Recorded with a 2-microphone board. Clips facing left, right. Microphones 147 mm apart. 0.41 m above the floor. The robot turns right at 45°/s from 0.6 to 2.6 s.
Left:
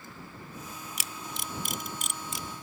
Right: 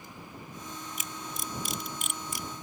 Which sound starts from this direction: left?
A camera shutter, at 1.0 s.